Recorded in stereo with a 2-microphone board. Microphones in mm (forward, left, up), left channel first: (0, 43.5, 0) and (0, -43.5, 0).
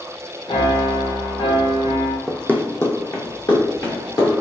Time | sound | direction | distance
0.5 | a piano | 75° left (ahead or behind) | 0.9 m
2.3 | running footsteps | 5° left (ahead or behind) | 0.7 m